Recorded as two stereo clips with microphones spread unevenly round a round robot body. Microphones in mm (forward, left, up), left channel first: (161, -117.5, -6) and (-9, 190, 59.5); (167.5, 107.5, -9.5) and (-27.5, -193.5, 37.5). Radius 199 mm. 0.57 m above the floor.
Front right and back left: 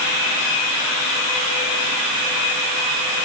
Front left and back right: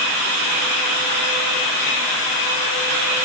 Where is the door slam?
I don't hear a door slam.